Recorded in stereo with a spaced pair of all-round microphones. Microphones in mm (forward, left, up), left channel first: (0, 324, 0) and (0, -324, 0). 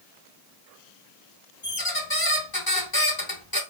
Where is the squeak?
35° left (ahead or behind), 0.9 m.